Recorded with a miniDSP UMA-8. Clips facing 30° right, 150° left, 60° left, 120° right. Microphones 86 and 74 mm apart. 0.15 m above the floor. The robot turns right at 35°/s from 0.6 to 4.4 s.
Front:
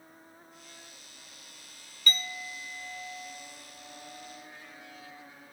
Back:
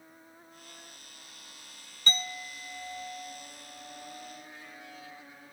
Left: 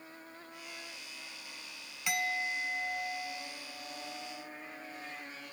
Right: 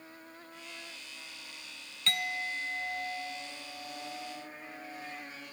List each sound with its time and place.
2.1 s a clink: 125° left, 1.2 m; by 5.2 s 155° right, 1.2 m